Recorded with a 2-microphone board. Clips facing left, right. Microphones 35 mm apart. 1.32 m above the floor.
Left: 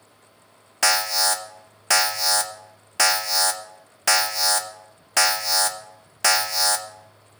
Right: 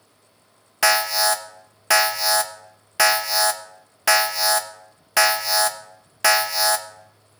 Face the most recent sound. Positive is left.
turn(degrees=-10)  # may be behind; listen again after turning